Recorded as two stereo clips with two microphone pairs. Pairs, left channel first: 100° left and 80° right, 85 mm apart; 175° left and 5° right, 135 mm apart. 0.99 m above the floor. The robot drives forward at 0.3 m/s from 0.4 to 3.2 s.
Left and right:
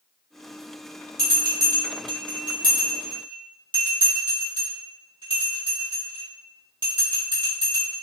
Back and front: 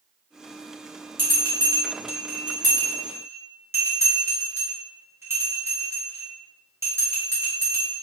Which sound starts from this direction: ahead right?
A bell, at 1.2 s.